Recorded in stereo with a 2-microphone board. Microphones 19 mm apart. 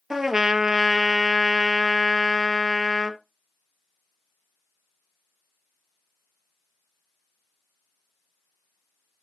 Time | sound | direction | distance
0.1 | a trumpet | 20° right (ahead or behind) | 0.9 m